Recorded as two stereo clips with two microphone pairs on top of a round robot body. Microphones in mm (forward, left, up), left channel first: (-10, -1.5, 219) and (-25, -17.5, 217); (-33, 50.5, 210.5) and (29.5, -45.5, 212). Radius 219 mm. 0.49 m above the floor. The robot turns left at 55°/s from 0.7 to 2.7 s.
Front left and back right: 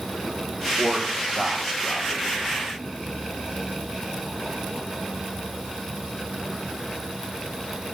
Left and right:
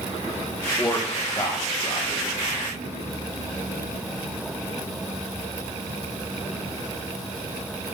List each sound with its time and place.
0.8 s a man speaking: 160° right, 1.2 m; by 2.3 s 120° left, 1.2 m